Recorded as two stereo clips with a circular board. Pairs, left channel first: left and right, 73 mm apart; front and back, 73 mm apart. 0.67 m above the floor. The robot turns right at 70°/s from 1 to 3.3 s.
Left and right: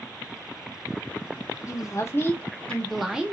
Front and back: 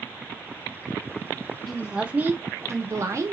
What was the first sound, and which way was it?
A woman speaking, 90° left.